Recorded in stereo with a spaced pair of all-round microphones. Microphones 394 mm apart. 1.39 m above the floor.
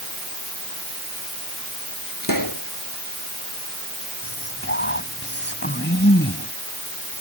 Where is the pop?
55° left (ahead or behind).